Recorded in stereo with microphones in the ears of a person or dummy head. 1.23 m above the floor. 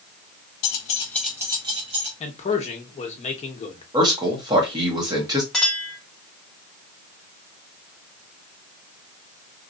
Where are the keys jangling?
60° left (ahead or behind), 0.8 m; by 2.1 s 40° right (ahead or behind), 1.6 m.